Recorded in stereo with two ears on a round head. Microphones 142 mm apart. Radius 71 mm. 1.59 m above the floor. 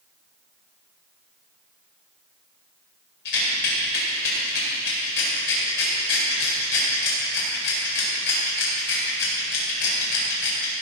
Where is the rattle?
75° left (ahead or behind), 5 m.